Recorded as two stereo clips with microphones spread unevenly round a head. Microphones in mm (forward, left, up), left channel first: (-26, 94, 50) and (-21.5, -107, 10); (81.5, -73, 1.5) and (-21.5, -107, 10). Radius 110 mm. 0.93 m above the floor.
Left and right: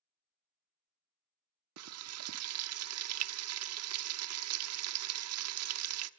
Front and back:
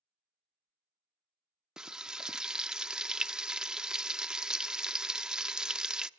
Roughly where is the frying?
Right.